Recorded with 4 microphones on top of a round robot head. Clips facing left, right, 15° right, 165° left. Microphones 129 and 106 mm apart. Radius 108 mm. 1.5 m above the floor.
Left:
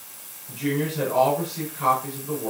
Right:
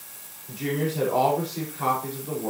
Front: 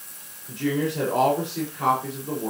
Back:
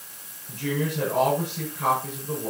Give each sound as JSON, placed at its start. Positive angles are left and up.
{"t": 0.5, "sound": "a woman speaking", "azimuth_deg": -35, "distance_m": 5.5}